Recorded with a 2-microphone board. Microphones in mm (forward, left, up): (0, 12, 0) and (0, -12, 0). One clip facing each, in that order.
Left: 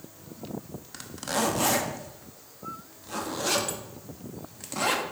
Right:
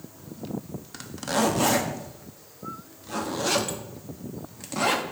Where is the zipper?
5° right (ahead or behind), 0.7 m.